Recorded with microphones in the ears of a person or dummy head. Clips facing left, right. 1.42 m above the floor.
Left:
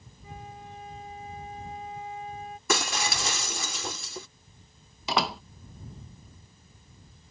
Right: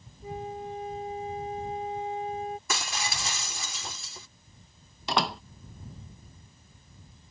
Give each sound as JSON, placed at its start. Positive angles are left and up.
{"t": 0.2, "sound": "a flute", "side_deg": -25}
{"t": 2.7, "sound": "breaking glass", "side_deg": 55}
{"t": 5.1, "sound": "a door slam", "side_deg": 5}